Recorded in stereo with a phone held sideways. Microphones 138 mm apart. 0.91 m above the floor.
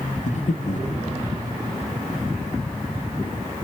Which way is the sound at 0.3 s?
60° left (ahead or behind).